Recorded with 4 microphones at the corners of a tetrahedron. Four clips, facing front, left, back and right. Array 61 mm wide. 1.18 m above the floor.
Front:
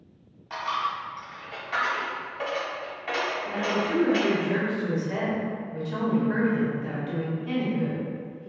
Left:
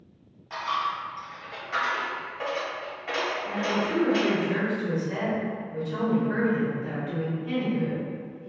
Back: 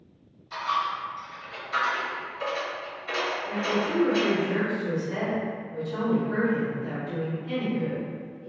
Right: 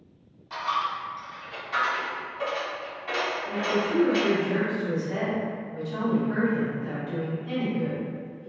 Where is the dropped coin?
10° left, 1.8 m.